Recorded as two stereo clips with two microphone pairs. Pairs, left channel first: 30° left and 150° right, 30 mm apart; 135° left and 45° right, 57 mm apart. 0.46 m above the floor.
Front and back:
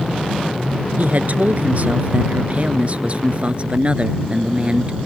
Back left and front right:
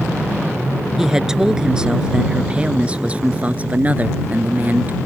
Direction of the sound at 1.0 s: 125° right.